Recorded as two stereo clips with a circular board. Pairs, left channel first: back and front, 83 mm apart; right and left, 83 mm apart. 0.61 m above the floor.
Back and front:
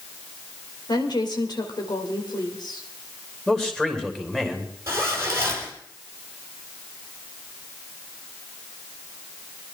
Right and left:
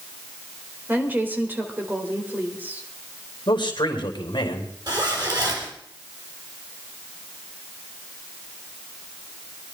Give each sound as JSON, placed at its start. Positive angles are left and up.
{"t": 0.9, "sound": "a woman speaking", "azimuth_deg": 155, "distance_m": 2.5}
{"t": 3.5, "sound": "a man speaking", "azimuth_deg": -100, "distance_m": 2.5}
{"t": 4.9, "sound": "a zipper", "azimuth_deg": 60, "distance_m": 3.5}